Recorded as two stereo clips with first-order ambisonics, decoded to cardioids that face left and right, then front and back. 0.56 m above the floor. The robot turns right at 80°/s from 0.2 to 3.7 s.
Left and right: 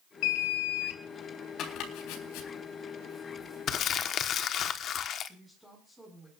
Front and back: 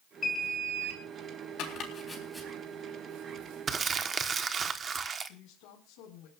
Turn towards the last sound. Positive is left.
turn(degrees=-5)